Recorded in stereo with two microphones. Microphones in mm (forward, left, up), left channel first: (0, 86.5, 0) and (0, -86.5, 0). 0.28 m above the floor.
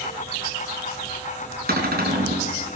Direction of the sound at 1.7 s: 65° right (ahead or behind).